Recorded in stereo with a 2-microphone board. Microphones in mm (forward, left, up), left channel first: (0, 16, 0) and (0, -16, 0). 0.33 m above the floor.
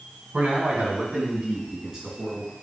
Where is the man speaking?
40° right (ahead or behind), 2.5 m; by 2.5 s 5° right (ahead or behind), 3 m.